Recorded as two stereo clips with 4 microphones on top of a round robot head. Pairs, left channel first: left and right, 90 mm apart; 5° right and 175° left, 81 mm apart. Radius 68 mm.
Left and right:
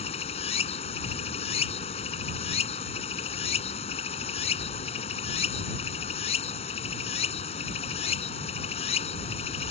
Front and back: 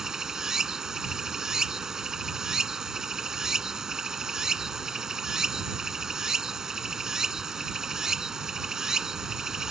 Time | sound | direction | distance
0.0 | running water | 90° left | ?